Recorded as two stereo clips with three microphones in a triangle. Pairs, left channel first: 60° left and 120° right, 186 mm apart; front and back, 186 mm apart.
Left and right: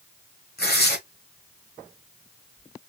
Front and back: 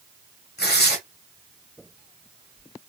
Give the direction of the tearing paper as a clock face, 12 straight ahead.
11 o'clock.